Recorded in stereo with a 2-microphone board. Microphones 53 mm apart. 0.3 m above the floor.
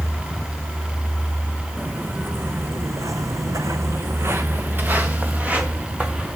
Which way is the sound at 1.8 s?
30° right (ahead or behind).